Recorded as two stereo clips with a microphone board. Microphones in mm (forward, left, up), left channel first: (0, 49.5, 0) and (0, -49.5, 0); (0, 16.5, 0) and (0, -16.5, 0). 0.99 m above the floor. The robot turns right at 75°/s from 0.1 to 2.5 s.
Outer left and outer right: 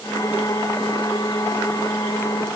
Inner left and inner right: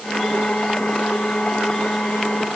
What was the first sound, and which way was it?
Only background noise.